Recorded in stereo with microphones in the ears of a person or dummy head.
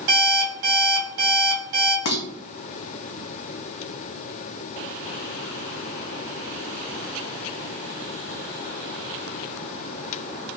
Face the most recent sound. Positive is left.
turn(degrees=50)  # may be behind; listen again after turning